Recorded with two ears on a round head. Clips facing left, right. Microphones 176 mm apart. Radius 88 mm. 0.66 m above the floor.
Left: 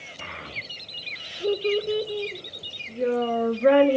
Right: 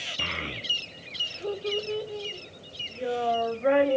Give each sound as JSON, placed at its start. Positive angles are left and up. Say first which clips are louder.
{"t": 0.2, "sound": "a child speaking", "louder": "right 4 dB", "side_deg": -45, "distance_m": 0.8}